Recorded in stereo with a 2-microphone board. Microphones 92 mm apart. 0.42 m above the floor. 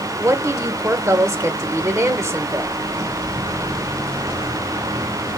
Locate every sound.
0.2 s a woman speaking: 30° right (ahead or behind), 1.0 m